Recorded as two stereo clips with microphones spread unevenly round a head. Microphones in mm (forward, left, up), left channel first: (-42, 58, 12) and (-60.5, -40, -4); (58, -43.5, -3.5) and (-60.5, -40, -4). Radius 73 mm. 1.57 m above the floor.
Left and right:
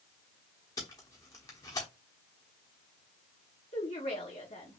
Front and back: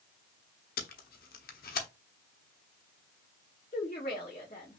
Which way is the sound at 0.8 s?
10° left.